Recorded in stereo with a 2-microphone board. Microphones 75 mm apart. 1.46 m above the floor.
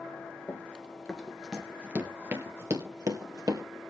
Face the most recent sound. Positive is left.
turn(degrees=-55)  # may be behind; listen again after turning